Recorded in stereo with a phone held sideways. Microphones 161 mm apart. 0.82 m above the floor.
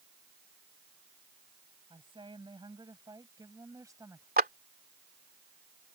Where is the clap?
70° right (ahead or behind).